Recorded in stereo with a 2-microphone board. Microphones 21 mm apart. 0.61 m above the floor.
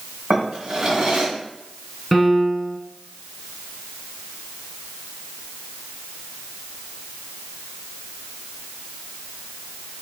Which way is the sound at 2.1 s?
10° right (ahead or behind).